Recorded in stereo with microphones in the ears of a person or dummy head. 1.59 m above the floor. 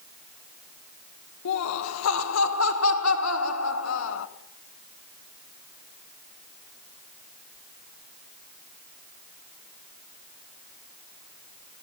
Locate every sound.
1.4 s laughter: 70° left (ahead or behind), 1.7 m